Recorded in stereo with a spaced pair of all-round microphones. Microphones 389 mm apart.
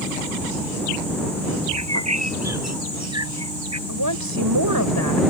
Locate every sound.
1.7 s a bird: 40° right (ahead or behind)
3.9 s a woman speaking: 65° right (ahead or behind)